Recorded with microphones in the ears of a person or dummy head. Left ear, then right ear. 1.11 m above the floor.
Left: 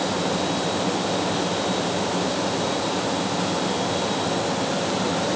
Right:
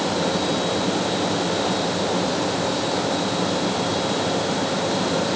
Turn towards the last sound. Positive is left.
No sound to turn to.